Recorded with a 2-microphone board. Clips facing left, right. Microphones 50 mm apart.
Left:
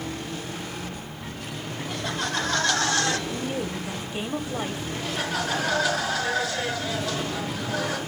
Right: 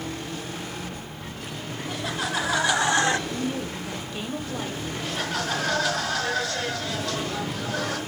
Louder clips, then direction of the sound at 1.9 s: Right 1 dB; centre (ahead or behind).